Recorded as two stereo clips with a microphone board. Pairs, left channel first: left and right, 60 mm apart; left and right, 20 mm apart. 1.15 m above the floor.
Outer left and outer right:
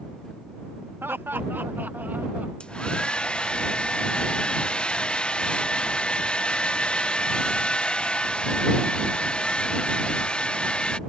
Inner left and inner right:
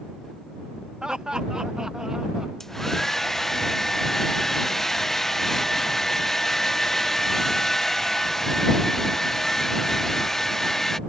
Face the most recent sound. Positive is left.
turn(degrees=15)  # may be behind; listen again after turning